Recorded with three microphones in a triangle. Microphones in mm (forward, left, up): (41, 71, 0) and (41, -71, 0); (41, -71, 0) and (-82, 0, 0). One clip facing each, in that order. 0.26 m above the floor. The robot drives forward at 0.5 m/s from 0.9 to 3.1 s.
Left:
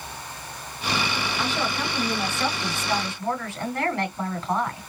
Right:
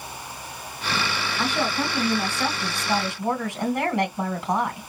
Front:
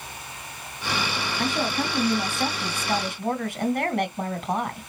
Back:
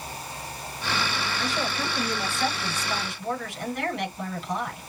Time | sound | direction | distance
1.4 | a woman speaking | 15° right | 3.5 m